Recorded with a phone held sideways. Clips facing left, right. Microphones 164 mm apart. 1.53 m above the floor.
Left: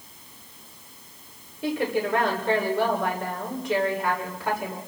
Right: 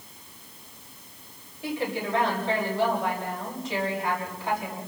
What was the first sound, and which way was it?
A woman speaking, 70° left (ahead or behind).